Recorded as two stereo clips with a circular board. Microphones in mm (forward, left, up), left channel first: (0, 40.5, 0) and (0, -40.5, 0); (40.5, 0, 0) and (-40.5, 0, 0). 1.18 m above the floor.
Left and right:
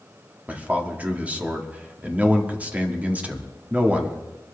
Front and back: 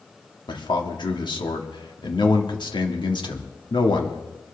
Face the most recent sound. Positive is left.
turn(degrees=-20)